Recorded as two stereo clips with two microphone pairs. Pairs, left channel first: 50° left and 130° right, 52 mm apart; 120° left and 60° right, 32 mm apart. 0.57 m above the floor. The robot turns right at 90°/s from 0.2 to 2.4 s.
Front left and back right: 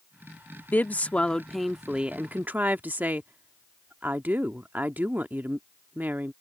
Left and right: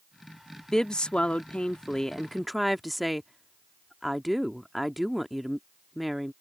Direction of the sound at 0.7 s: 60° left.